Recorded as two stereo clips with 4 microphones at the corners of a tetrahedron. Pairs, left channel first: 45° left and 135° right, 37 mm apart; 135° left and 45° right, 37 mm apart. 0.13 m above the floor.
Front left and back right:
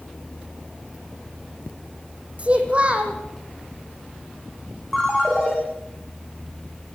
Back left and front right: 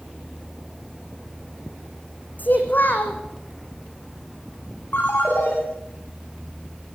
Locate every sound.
2.4 s a child speaking: 170° left, 3.5 m
4.9 s a ringtone: 130° left, 7.5 m